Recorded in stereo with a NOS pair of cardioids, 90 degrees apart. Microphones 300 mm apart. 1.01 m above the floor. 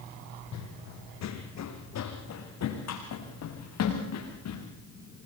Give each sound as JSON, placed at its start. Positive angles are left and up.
{"t": 0.5, "sound": "running footsteps", "azimuth_deg": 70, "distance_m": 3.0}